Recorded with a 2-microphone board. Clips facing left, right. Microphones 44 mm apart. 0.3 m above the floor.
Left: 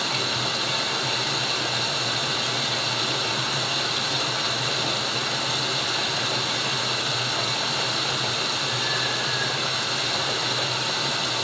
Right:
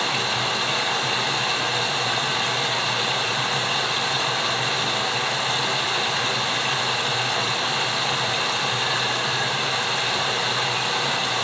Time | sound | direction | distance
0.0 | running water | 35° right (ahead or behind) | 0.8 m